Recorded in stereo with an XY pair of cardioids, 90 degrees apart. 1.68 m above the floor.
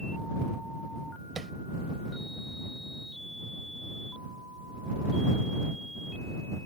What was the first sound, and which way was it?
Tapping, 45° right.